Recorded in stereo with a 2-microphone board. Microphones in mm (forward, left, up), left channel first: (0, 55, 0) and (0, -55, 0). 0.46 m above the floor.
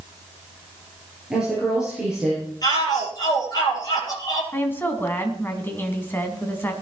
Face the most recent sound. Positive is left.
turn(degrees=20)  # may be behind; listen again after turning